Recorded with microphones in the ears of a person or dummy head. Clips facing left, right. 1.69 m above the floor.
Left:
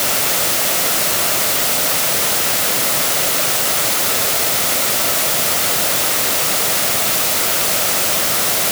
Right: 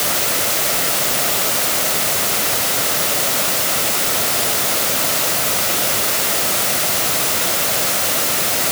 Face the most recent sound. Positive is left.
No sound to turn to.